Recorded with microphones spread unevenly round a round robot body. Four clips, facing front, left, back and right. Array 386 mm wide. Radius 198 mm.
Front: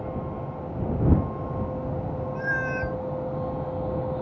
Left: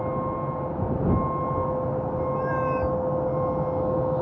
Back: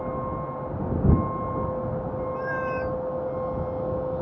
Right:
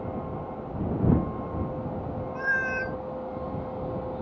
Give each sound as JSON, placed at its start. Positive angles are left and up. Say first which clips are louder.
{"t": 0.0, "sound": "a vehicle", "louder": "left 7 dB, back 3 dB", "azimuth_deg": 85}
{"t": 2.4, "sound": "a cat meowing", "louder": "left 1 dB, front 1 dB", "azimuth_deg": -70}